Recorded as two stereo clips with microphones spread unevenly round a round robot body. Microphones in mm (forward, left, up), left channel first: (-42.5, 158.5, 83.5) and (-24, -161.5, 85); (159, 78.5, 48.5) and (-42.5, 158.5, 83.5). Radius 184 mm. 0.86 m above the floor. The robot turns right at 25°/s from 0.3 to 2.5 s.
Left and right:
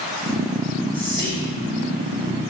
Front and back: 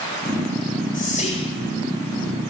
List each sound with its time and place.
0.9 s whispering: 30° left, 1.6 m; by 1.5 s 45° left, 1.6 m